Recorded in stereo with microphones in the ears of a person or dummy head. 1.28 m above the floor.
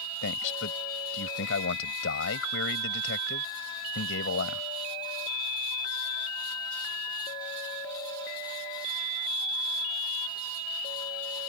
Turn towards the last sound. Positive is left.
turn(degrees=70)  # may be behind; listen again after turning